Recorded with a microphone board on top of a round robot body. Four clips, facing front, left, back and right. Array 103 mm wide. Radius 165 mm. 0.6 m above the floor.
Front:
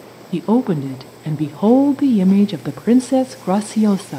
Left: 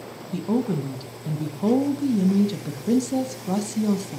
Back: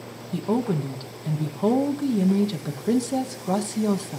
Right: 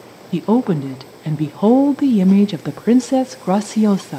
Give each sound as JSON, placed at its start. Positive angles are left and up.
{"t": 0.3, "sound": "a woman speaking", "azimuth_deg": -50, "distance_m": 1.0}